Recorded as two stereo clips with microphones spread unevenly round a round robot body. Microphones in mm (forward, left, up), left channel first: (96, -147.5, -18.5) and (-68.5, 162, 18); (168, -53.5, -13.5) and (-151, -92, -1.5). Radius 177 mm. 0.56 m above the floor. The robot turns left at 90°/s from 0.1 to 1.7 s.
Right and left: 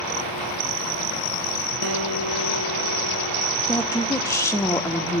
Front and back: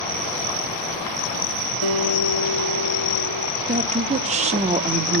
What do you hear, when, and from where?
1.8 s a guitar: 165° left, 0.8 m
3.6 s a woman speaking: 125° right, 0.9 m